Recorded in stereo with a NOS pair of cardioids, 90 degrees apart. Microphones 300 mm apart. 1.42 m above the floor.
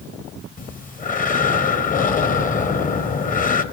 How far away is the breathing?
About 0.7 m.